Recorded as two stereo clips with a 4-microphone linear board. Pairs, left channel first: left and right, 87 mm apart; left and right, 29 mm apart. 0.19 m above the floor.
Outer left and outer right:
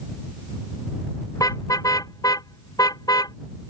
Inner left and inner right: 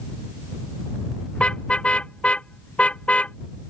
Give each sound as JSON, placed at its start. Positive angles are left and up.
{"t": 1.4, "sound": "a car horn", "side_deg": 40}